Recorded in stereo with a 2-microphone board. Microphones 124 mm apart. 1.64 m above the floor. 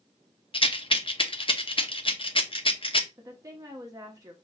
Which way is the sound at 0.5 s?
45° left (ahead or behind).